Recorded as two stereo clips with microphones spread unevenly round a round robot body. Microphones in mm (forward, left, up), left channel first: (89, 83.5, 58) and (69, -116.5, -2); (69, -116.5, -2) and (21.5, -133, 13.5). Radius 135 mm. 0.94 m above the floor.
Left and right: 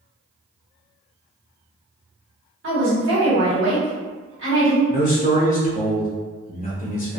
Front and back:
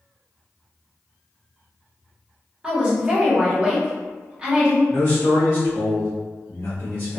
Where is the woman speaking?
85° right, 1.8 m.